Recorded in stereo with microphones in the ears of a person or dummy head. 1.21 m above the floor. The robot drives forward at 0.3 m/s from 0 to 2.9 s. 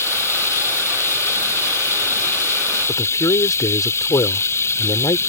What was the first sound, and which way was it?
Running water, 15° left (ahead or behind).